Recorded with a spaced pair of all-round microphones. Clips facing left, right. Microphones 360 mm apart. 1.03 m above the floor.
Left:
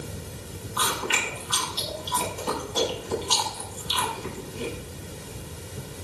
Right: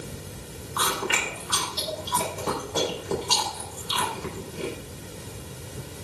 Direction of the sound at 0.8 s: 85° right.